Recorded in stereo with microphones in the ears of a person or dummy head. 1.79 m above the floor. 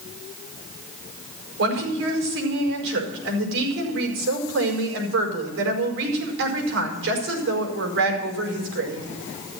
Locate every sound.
1.6 s a woman speaking: 75° right (ahead or behind), 5 m